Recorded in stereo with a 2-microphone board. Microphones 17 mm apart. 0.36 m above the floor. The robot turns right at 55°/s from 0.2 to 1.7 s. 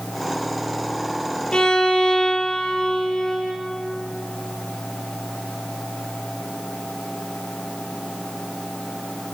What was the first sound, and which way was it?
A violin, 70° left (ahead or behind).